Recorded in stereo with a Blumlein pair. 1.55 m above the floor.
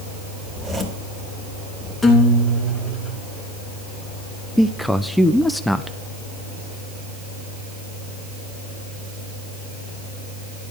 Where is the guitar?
10° left, 2.5 m.